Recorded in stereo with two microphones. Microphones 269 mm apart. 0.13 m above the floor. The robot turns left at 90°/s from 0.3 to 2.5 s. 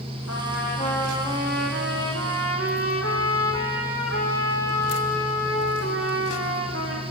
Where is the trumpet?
75° left, 4 m; by 7.0 s 125° right, 4 m.